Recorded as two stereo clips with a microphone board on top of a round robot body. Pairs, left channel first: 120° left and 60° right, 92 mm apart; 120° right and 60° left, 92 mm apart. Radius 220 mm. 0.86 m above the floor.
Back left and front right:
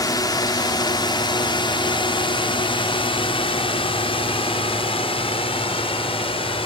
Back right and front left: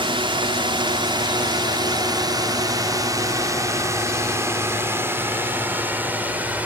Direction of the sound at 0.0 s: 75° left.